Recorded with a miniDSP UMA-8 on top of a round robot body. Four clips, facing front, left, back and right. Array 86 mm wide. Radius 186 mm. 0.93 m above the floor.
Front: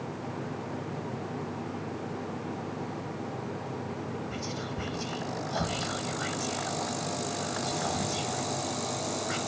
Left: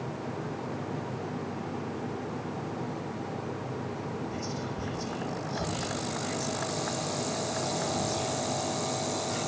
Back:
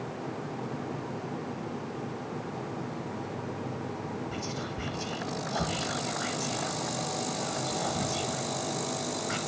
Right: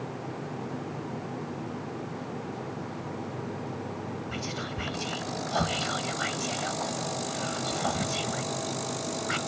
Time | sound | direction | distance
4.3 | whispering | 90° right | 1.3 m